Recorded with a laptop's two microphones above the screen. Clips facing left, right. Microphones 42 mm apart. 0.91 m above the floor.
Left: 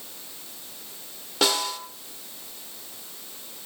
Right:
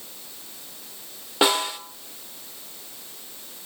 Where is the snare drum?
25° right (ahead or behind), 1.5 m.